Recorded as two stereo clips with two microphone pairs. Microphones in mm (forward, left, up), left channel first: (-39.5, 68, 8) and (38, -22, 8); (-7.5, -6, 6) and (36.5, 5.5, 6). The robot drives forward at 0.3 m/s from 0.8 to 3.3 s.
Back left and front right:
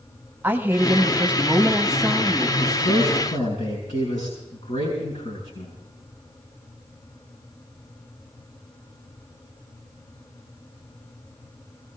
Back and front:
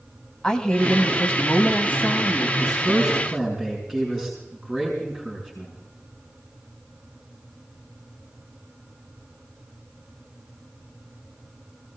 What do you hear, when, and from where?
0.4 s a woman speaking: 110° right, 1.1 m; by 2.5 s 140° right, 1.3 m
2.6 s a man speaking: 110° left, 6 m